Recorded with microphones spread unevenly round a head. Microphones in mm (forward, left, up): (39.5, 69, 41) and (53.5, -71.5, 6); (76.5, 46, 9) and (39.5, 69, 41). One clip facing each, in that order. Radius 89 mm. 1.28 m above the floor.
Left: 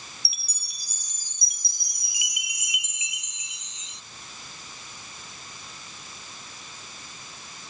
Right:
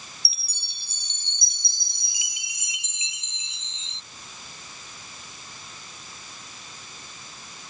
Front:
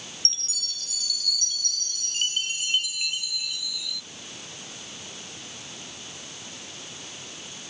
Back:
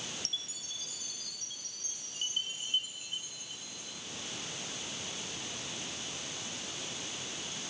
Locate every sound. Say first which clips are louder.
0.2 s a chime: even, front 4 dB; 20° right